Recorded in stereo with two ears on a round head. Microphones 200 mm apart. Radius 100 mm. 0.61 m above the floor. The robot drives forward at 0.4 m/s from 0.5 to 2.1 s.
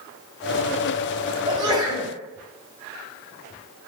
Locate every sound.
1.5 s a sneeze: 20° right (ahead or behind), 3 m